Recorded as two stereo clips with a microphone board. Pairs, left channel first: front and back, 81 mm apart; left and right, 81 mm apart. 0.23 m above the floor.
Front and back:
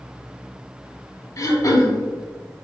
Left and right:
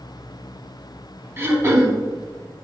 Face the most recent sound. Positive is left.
turn(degrees=-35)